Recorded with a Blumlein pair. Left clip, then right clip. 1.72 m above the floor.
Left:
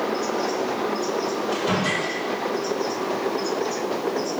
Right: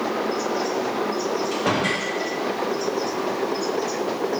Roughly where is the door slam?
Ahead right.